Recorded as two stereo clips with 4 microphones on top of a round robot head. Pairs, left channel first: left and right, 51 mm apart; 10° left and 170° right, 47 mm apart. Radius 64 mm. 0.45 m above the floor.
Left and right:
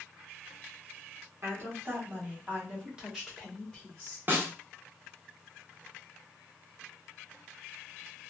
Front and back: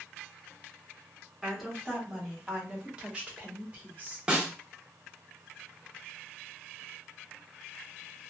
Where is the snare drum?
105° right, 1.0 m.